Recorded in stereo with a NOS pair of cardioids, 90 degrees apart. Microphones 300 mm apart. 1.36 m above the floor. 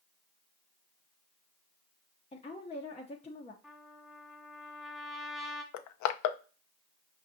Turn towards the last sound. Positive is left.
turn(degrees=65)